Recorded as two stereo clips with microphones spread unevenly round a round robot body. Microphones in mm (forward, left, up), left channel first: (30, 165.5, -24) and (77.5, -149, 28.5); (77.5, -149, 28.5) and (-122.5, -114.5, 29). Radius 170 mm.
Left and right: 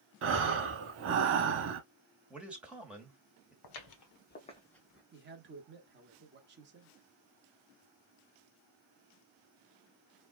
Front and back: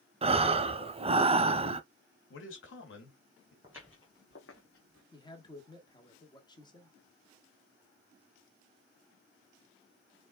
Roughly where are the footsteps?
Left.